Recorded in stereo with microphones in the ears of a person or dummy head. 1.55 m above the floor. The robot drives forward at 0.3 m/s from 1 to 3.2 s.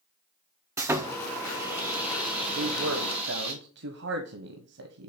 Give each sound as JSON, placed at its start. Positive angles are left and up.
{"t": 0.8, "sound": "sawing", "side_deg": -10, "distance_m": 0.6}
{"t": 2.5, "sound": "a man speaking", "side_deg": -80, "distance_m": 1.2}